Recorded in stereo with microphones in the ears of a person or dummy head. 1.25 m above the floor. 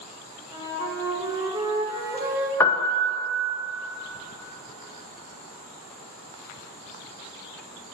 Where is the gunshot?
No gunshot in this recording.